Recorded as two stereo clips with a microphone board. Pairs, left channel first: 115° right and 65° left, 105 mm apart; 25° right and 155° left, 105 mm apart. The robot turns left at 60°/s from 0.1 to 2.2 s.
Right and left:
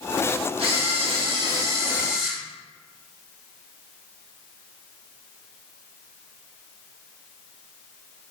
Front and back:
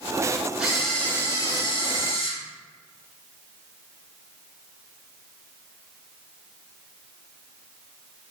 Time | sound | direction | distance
0.6 | a camera shutter | 75° left | 0.8 m